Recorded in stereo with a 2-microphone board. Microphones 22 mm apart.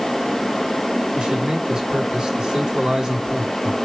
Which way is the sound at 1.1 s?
45° right (ahead or behind).